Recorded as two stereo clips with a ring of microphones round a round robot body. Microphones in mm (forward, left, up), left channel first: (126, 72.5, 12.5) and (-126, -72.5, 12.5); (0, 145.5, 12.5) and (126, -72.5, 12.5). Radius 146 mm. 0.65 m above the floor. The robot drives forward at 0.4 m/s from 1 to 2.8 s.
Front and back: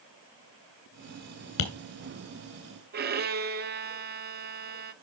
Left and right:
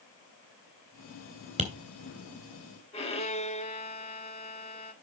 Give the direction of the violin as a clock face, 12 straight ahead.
6 o'clock.